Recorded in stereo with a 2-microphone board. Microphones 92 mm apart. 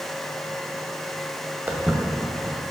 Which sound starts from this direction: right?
Footsteps, at 1.7 s.